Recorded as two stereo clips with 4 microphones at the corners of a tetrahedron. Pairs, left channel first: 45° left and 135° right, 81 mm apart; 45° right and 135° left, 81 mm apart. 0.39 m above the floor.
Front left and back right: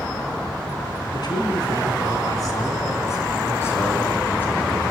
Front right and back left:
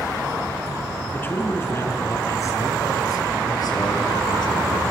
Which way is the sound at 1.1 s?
20° left.